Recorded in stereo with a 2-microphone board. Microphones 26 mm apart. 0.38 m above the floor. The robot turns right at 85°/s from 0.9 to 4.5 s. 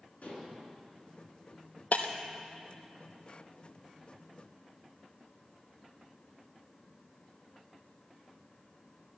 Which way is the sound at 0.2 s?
65° left (ahead or behind).